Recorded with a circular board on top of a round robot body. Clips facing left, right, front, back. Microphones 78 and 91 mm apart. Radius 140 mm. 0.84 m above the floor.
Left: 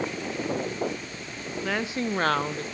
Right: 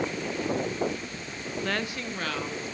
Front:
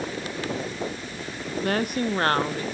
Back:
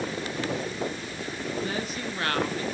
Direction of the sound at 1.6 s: Straight ahead.